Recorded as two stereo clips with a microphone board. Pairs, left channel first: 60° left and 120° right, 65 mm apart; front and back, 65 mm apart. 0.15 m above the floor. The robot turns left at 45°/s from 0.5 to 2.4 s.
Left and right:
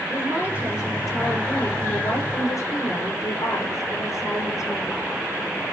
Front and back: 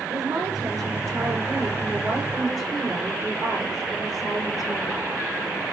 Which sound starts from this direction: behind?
A woman speaking, at 0.1 s.